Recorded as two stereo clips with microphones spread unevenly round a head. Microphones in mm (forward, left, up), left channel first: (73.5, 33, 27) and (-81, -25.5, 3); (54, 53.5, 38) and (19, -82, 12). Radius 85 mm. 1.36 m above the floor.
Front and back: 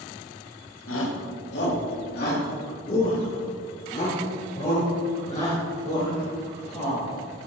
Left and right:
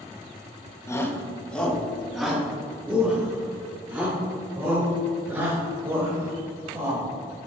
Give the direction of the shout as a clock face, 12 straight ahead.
12 o'clock.